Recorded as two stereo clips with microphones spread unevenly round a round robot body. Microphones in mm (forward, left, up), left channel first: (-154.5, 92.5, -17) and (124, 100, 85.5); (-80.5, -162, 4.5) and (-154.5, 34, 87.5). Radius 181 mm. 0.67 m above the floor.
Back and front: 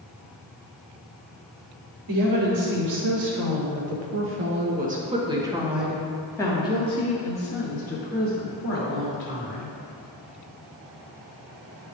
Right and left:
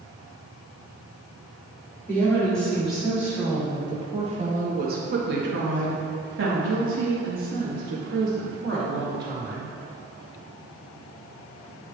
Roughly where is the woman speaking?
Ahead.